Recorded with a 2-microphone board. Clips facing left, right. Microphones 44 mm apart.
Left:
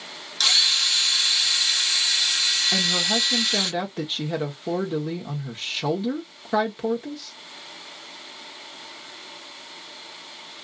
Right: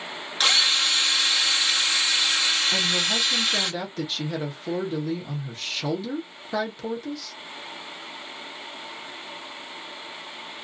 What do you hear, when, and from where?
0.4 s a drill: 25° right (ahead or behind), 1.4 m
2.7 s a woman speaking: 20° left (ahead or behind), 0.9 m